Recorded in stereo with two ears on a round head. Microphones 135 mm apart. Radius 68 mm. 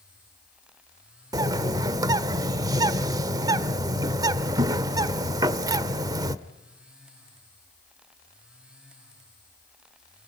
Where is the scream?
I don't hear a scream.